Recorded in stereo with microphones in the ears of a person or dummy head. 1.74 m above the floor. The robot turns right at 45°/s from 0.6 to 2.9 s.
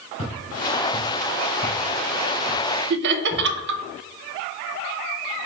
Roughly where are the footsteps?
Left.